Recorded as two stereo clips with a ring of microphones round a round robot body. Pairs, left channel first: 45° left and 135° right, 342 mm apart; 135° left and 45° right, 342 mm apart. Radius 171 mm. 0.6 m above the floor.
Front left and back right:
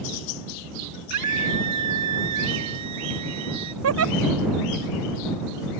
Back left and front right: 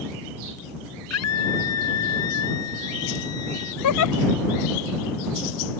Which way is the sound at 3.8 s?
175° left.